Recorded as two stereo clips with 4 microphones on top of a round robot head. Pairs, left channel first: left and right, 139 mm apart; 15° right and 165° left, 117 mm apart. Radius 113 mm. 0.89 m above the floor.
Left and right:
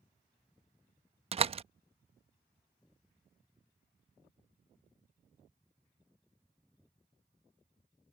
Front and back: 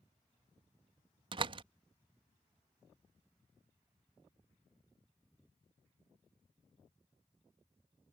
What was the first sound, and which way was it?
A door slam, 140° right.